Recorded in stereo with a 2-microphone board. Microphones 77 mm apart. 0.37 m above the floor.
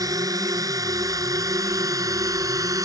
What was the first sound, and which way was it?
A drone, 50° right (ahead or behind).